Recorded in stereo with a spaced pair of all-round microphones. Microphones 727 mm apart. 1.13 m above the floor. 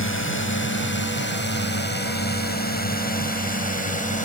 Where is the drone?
15° left (ahead or behind); by 4.3 s 10° left (ahead or behind).